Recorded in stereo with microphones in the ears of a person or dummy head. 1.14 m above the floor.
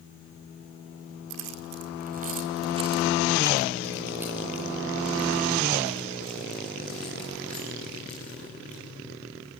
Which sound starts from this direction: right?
Keys jangling, at 1.3 s.